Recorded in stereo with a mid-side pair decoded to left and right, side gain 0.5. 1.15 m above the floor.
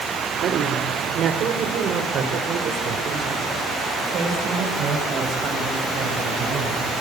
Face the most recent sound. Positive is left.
turn(degrees=-50)